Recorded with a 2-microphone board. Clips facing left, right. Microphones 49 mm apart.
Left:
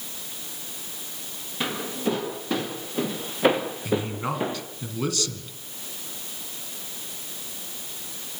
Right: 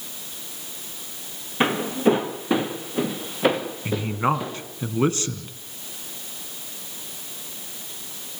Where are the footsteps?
40° right (ahead or behind), 3 m; by 4.6 s 30° left (ahead or behind), 2.5 m.